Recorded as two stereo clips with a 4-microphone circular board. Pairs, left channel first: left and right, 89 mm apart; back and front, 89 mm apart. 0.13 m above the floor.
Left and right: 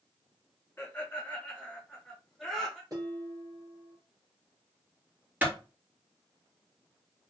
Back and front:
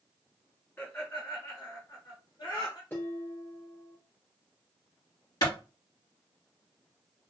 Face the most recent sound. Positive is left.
turn(degrees=-155)